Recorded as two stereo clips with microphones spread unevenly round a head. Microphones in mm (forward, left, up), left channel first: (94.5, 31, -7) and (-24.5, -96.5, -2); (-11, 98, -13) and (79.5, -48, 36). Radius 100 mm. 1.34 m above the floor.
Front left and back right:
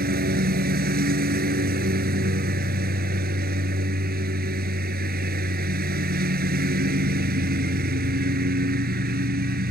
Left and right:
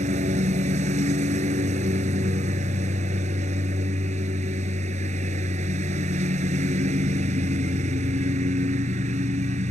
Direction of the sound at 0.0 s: 105° right.